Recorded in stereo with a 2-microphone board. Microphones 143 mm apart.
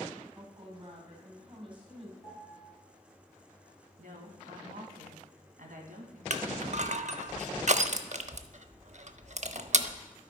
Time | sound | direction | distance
0.3 | a woman speaking | 40° right (ahead or behind) | 3 m
2.2 | a piano | 5° left (ahead or behind) | 5 m
4.0 | a woman speaking | 70° right (ahead or behind) | 2.5 m
6.3 | crushing | 55° right (ahead or behind) | 0.5 m